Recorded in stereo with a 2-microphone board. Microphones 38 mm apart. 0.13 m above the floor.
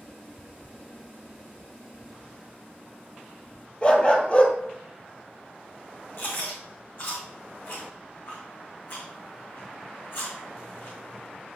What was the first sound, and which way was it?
A dog barking, 30° left (ahead or behind).